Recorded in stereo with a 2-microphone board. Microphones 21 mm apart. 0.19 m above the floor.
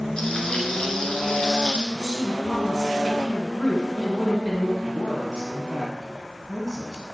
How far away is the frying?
About 1.7 m.